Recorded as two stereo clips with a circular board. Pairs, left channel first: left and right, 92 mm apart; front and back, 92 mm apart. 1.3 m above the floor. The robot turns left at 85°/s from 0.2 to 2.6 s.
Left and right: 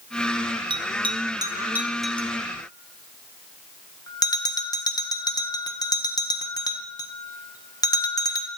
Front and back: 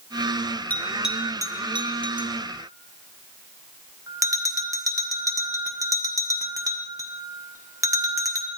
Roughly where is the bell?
Right.